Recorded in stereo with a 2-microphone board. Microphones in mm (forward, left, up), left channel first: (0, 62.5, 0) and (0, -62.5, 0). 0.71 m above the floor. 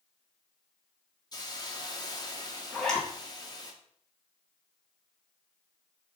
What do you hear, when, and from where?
1.3 s a hiss: 35° left (ahead or behind), 1.4 m
2.7 s a zipper: 5° left (ahead or behind), 3 m